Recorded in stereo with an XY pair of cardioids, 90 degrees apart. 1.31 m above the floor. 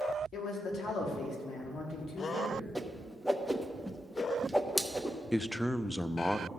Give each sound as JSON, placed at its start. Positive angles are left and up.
{"t": 0.3, "sound": "a man speaking", "azimuth_deg": 65, "distance_m": 2.5}
{"t": 2.8, "sound": "a whoosh", "azimuth_deg": 5, "distance_m": 0.9}
{"t": 5.3, "sound": "a man speaking", "azimuth_deg": 10, "distance_m": 0.5}